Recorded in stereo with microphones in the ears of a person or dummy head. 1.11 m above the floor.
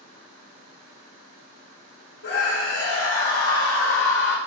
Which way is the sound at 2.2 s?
80° left.